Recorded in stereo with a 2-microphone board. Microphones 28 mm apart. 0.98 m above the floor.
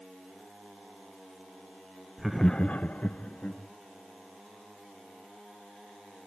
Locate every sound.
2.2 s laughter: 10° right (ahead or behind), 0.7 m; by 3.6 s 50° left (ahead or behind), 1.7 m